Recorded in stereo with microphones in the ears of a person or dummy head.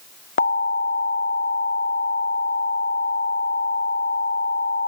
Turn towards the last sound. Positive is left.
turn(degrees=50)  # may be behind; listen again after turning